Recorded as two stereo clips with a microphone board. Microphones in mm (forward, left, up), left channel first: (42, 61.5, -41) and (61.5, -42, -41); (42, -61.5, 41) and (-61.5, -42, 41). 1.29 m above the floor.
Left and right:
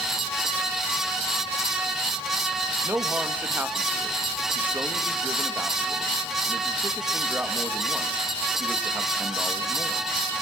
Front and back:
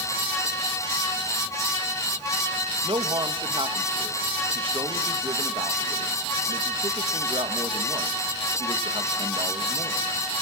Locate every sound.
2.8 s a man speaking: 150° right, 1.9 m